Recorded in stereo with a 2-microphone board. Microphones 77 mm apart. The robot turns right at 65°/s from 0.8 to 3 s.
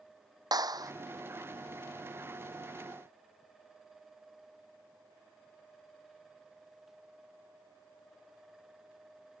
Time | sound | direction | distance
0.5 | a clap | 50° right (ahead or behind) | ?